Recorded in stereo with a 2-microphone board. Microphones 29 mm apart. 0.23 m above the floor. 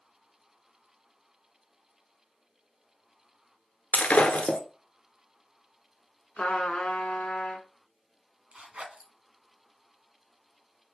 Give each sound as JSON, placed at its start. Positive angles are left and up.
{"t": 3.9, "sound": "breaking glass", "side_deg": 65, "distance_m": 0.8}
{"t": 6.4, "sound": "a trumpet", "side_deg": 45, "distance_m": 1.3}
{"t": 8.5, "sound": "a zipper", "side_deg": -55, "distance_m": 1.0}